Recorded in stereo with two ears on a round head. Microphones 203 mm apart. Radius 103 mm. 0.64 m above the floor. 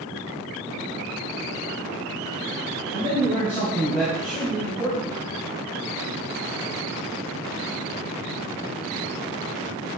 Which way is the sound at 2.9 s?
15° left (ahead or behind).